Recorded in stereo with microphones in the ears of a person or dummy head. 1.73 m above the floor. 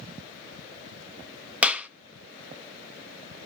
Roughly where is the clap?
Centre.